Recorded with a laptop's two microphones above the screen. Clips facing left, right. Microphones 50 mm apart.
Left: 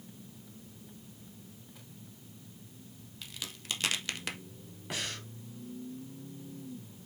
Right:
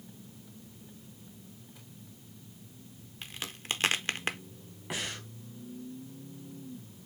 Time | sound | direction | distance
3.2 | a crack | 35° right (ahead or behind) | 0.6 m
4.9 | breathing | 10° right (ahead or behind) | 1.3 m